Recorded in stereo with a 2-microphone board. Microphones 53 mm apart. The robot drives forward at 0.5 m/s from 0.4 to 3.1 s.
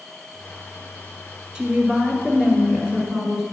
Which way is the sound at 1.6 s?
15° right (ahead or behind).